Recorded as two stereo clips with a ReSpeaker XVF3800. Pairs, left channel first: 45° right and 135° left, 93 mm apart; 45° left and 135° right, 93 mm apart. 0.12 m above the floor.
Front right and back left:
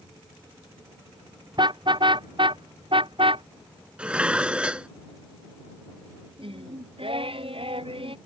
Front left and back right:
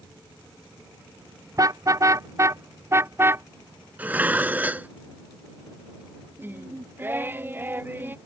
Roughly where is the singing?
Behind left.